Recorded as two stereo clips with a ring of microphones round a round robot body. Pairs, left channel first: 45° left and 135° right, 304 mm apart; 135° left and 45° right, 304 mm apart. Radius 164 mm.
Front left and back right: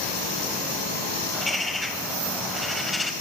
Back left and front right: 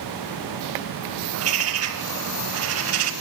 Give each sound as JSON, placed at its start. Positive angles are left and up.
{"t": 1.3, "sound": "a bird", "azimuth_deg": -45, "distance_m": 0.8}